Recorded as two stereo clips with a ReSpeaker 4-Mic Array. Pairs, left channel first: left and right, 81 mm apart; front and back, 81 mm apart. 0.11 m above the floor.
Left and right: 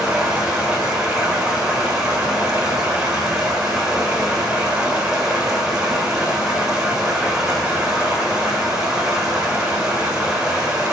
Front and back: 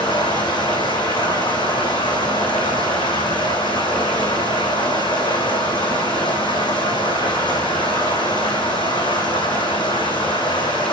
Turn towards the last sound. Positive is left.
turn(degrees=-5)